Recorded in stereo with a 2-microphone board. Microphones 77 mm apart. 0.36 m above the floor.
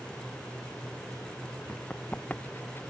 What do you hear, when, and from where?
1.7 s running footsteps: 15° left (ahead or behind); by 2.8 s 30° left (ahead or behind)